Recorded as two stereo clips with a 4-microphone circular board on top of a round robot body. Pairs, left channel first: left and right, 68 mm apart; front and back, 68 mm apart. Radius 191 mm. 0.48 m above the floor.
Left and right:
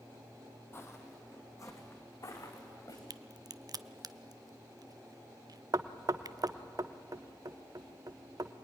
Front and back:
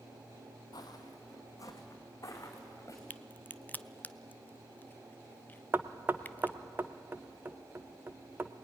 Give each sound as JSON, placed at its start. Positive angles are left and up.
{"t": 0.7, "sound": "footsteps", "azimuth_deg": 30, "distance_m": 1.6}
{"t": 3.1, "sound": "a crack", "azimuth_deg": -65, "distance_m": 0.7}
{"t": 5.7, "sound": "knocking", "azimuth_deg": -120, "distance_m": 0.9}